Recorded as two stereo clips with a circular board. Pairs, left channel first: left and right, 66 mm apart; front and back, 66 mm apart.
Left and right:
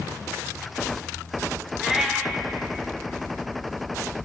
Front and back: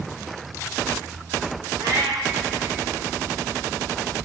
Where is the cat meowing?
170° right, 1.8 m.